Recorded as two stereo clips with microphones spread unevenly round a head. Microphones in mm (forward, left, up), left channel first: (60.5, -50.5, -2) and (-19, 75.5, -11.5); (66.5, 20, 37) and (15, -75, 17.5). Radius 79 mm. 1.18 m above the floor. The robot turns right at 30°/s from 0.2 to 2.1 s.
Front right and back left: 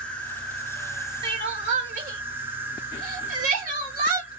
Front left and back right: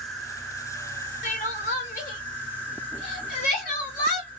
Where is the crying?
60° left, 1.2 m; by 4.3 s 85° left, 1.2 m.